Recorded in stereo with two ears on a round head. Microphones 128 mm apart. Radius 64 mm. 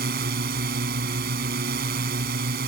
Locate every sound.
0.0 s a drone: 75° right (ahead or behind)